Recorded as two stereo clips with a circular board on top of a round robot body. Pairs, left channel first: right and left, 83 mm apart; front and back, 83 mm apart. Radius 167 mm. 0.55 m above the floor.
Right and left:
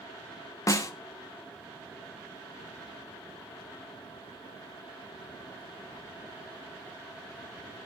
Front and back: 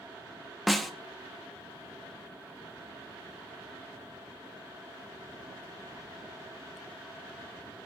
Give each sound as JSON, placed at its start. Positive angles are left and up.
{"t": 0.7, "sound": "a snare drum", "azimuth_deg": -90, "distance_m": 1.2}